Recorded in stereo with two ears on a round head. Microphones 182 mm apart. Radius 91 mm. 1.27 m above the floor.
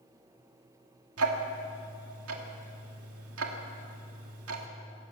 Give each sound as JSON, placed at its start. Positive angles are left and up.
{"t": 1.2, "sound": "ticking", "side_deg": -80, "distance_m": 2.5}